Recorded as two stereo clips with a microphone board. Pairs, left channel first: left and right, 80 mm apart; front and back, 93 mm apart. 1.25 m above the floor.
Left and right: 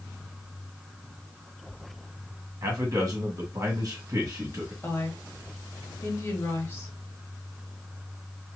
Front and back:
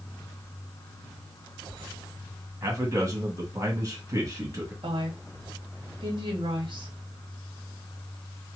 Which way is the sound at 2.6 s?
125° right.